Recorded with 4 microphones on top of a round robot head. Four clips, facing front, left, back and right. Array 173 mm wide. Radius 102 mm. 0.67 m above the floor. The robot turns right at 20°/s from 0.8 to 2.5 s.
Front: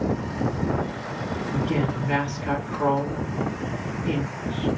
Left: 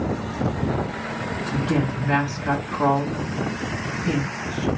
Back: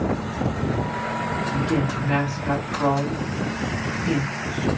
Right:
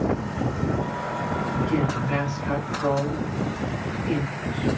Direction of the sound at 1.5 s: 70° left.